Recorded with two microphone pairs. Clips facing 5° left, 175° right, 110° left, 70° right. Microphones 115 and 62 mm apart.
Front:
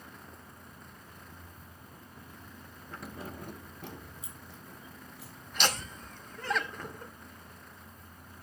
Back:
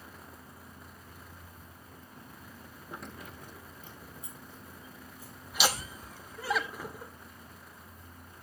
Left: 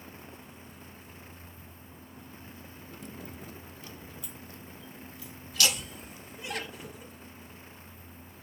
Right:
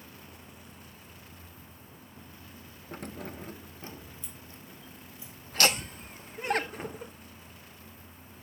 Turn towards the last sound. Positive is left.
turn(degrees=-95)